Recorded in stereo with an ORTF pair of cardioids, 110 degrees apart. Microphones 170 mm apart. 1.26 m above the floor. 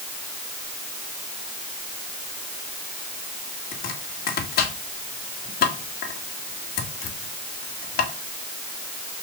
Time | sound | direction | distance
3.7 | chopping | 65° left | 2.5 m